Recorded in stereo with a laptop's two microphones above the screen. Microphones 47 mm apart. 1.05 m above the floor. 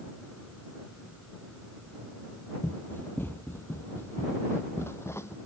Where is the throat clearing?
I don't hear throat clearing.